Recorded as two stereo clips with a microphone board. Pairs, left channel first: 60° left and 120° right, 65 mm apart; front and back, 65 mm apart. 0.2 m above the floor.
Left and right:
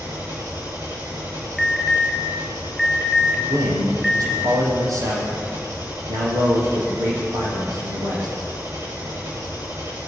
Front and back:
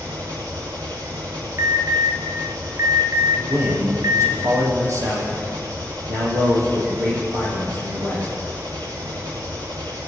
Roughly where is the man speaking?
Behind right.